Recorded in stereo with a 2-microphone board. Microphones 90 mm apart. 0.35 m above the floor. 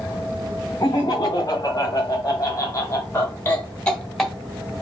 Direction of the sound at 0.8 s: 45° left (ahead or behind).